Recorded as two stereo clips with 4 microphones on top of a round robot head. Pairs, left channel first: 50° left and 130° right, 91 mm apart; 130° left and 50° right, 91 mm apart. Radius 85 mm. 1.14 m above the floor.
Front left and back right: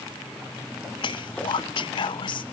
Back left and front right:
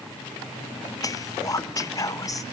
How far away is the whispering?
About 0.5 m.